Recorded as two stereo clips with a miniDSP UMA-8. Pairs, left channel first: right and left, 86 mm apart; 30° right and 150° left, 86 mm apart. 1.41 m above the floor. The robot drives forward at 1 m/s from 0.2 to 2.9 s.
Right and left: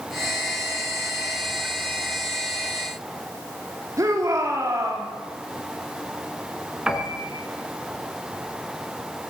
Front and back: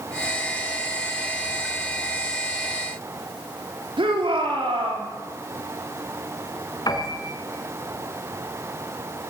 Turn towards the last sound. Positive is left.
turn(degrees=10)